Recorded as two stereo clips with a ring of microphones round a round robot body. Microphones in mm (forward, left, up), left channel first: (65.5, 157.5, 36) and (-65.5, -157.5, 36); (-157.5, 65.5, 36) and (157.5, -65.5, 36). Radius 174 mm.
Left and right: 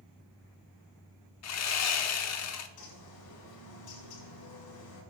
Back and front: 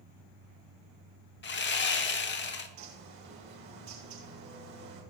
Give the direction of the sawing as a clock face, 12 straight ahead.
9 o'clock.